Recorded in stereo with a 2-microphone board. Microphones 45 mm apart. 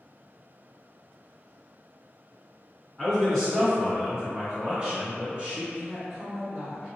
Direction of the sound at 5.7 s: 10° right (ahead or behind).